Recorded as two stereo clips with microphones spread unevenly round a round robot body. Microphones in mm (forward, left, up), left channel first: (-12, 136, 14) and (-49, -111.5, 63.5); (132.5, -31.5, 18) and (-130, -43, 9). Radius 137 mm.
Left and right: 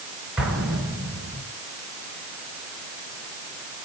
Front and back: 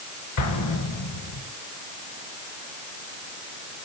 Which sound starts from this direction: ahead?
An explosion, at 0.4 s.